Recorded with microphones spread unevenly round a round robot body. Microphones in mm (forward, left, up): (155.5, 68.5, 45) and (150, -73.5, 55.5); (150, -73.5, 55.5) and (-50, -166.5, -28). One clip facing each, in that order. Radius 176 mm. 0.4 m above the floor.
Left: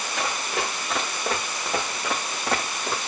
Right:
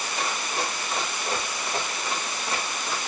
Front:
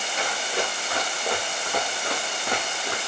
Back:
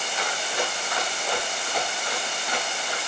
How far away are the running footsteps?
About 4.5 m.